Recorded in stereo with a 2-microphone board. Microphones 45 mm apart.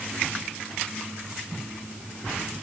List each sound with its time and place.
Only background noise.